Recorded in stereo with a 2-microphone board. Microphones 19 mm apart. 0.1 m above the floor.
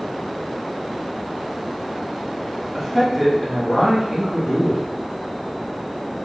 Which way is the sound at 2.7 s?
5° right (ahead or behind).